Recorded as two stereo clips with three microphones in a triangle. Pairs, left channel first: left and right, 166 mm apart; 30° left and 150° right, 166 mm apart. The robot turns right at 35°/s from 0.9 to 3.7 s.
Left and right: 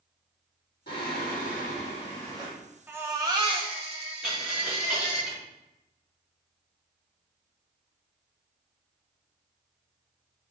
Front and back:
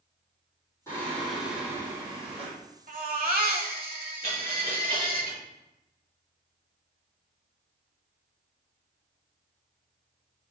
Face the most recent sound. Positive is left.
turn(degrees=-175)